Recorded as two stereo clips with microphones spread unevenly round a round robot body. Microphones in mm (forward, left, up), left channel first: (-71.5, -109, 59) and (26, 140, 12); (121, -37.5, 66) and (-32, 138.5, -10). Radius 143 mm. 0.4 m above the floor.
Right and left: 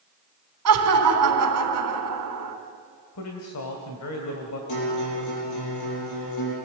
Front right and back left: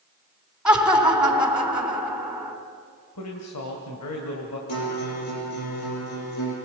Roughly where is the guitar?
Right.